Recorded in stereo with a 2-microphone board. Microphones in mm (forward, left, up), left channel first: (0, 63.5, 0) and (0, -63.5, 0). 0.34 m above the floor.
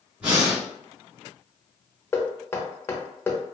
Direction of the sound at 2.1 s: 20° left (ahead or behind).